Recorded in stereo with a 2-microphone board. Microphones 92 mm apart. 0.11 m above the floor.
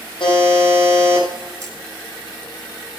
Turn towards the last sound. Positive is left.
turn(degrees=-35)  # may be behind; listen again after turning